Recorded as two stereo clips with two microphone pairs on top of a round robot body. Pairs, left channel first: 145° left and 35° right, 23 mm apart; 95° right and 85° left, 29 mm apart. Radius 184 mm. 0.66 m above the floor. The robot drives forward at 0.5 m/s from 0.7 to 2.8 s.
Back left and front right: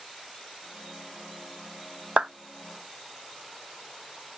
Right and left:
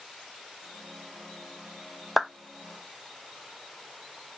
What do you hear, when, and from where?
2.2 s a clap: straight ahead, 0.5 m